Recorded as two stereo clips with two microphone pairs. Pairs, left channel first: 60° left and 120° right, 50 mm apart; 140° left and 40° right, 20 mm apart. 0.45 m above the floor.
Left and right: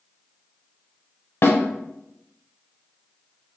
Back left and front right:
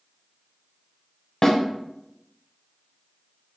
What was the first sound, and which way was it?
A snare drum, 80° left.